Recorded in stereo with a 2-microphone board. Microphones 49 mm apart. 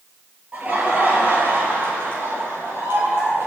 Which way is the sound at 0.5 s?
30° right (ahead or behind).